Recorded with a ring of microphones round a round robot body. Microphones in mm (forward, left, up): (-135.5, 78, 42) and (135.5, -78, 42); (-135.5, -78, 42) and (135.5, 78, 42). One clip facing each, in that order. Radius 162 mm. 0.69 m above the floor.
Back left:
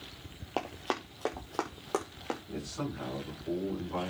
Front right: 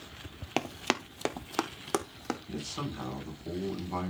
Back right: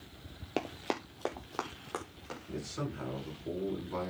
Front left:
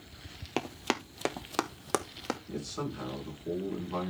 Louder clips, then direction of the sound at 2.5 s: Back left 1 dB, back right 3 dB; 55° right.